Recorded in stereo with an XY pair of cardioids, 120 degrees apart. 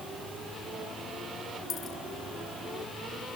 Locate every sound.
1.7 s a dropped coin: 55° left